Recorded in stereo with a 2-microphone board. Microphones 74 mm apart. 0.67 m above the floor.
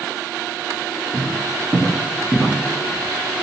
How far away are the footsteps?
About 0.9 m.